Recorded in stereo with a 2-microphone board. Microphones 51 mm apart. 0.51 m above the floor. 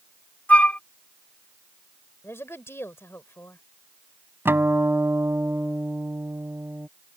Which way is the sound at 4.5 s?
45° right (ahead or behind).